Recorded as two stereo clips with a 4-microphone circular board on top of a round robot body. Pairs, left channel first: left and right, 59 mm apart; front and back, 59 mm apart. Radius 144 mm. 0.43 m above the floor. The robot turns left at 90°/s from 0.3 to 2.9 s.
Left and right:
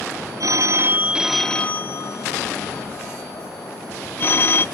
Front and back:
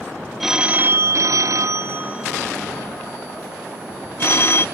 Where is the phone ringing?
95° right, 0.7 m; by 4.7 s 40° left, 0.7 m.